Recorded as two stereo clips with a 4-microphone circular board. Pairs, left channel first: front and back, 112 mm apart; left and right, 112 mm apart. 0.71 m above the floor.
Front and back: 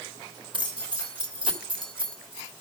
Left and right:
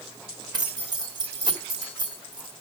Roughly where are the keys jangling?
Behind right.